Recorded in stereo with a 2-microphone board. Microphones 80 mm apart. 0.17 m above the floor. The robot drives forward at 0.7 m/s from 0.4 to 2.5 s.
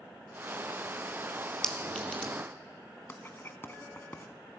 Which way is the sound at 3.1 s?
30° left (ahead or behind).